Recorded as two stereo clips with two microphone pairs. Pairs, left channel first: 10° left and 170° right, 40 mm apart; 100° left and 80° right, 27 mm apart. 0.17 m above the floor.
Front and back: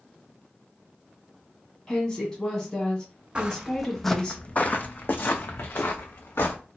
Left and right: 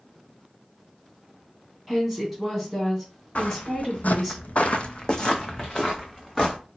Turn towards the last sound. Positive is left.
turn(degrees=15)